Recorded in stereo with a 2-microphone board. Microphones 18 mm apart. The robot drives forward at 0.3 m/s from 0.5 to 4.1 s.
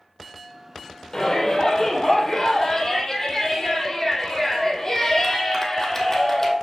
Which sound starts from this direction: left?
A shout, at 1.1 s.